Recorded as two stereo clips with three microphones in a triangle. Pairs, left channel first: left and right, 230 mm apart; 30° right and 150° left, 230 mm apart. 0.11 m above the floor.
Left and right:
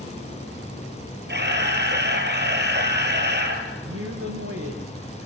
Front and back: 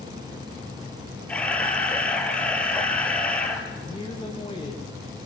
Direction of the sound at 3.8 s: 100° right.